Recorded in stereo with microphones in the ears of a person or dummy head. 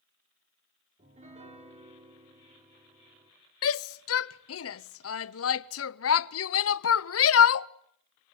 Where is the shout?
75° left (ahead or behind), 1.0 m.